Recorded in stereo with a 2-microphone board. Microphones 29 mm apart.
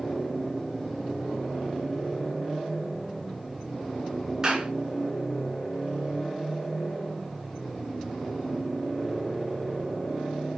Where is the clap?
20° right (ahead or behind), 3.5 m.